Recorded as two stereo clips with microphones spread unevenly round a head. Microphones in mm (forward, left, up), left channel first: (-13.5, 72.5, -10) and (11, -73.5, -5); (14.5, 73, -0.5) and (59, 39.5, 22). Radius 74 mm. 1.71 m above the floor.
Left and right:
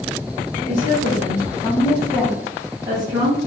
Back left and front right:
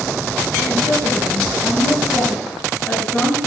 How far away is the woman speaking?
About 1.1 m.